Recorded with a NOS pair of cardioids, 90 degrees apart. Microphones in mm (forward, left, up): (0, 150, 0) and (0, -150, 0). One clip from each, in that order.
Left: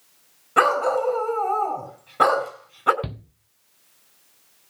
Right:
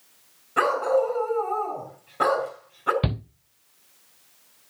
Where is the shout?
35° right, 0.7 m.